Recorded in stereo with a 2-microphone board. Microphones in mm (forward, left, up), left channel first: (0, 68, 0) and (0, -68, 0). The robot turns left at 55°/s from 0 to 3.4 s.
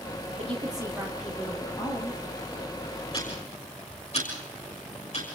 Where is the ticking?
40° left (ahead or behind), 6 m; by 5.2 s 50° left (ahead or behind), 6 m.